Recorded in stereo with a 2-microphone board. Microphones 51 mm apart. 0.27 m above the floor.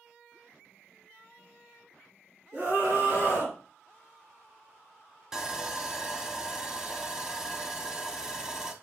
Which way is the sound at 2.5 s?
35° right (ahead or behind).